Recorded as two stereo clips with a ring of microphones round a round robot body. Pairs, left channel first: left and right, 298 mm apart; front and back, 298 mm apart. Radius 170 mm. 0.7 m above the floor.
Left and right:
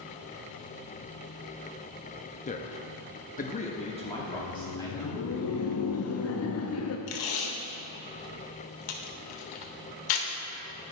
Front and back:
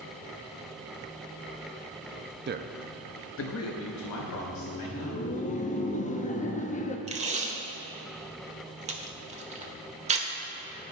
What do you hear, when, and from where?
2.5 s a man speaking: 145° left, 0.6 m; by 5.2 s 15° left, 2 m
4.2 s laughter: 60° left, 0.7 m
7.1 s tape being pulled: 110° left, 1.1 m